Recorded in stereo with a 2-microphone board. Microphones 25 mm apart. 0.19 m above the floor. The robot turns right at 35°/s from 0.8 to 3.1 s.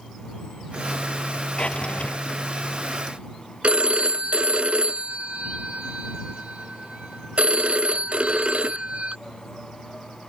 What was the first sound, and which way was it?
A drawer, 45° left (ahead or behind).